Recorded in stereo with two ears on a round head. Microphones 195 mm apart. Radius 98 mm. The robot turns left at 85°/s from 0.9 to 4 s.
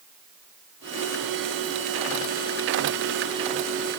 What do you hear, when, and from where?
Only background noise.